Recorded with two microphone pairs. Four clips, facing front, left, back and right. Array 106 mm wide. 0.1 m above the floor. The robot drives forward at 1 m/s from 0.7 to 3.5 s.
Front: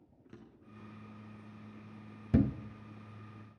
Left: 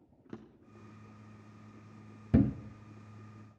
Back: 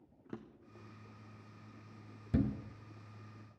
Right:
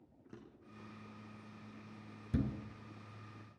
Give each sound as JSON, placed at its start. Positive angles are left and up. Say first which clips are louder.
{"t": 0.3, "sound": "a drawer", "louder": "left 6 dB, back 5 dB", "azimuth_deg": 140, "distance_m": 1.8}
{"t": 2.3, "sound": "a thud", "louder": "left 10 dB, front 5 dB", "azimuth_deg": 65, "distance_m": 0.6}